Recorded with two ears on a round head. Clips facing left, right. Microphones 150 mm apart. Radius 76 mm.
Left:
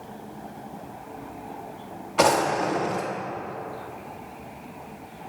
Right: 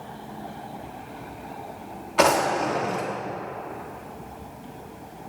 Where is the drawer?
5° right (ahead or behind), 1.3 m.